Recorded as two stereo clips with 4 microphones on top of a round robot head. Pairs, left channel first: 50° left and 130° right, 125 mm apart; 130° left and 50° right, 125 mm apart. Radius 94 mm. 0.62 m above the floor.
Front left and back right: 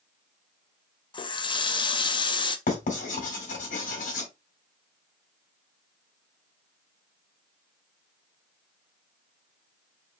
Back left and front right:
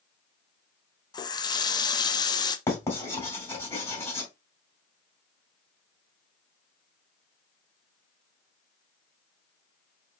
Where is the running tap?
85° left, 0.6 m.